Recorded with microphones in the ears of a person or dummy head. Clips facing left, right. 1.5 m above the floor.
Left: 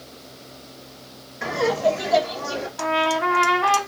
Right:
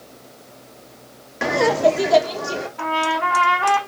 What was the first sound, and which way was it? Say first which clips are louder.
Laughter: right 4 dB; 85° right.